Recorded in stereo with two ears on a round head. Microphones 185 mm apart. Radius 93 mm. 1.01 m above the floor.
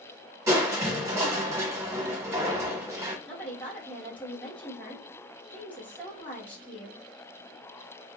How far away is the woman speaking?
About 1.3 m.